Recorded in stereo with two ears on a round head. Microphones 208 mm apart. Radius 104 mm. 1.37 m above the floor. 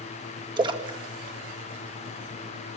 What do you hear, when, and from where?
0.6 s a splash: 20° right (ahead or behind), 2 m